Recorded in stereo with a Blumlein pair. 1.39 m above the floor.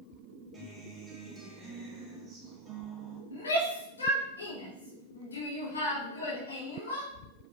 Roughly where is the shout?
Left.